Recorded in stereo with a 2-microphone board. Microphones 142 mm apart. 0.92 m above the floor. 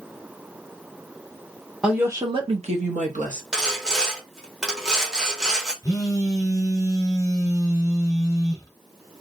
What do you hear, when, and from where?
1.8 s a woman speaking: 5° right (ahead or behind), 0.8 m; by 3.4 s 60° right (ahead or behind), 1.5 m
3.5 s sawing: 5° right (ahead or behind), 0.9 m
5.8 s a phone buzzing: 25° left (ahead or behind), 1.2 m